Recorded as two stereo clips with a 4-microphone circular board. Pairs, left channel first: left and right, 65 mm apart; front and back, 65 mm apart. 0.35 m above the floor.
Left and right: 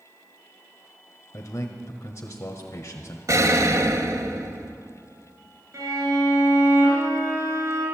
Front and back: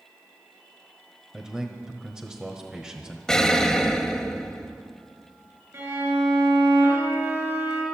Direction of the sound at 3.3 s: 80° right.